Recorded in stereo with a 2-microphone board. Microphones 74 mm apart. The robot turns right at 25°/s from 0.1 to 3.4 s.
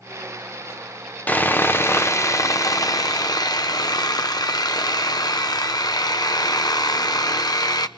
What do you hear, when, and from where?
1.3 s sawing: 25° left, 1.0 m; by 7.9 s 80° left, 1.0 m